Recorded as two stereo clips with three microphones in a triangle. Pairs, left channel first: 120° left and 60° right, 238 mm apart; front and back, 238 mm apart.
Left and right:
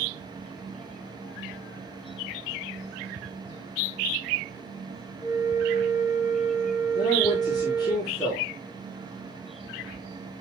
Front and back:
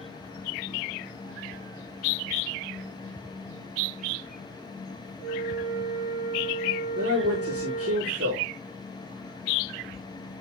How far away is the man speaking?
About 6.5 m.